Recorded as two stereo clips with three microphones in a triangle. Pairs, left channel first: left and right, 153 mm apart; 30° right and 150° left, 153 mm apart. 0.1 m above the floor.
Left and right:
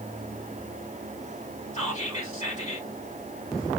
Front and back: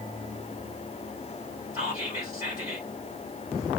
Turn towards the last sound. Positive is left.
turn(degrees=95)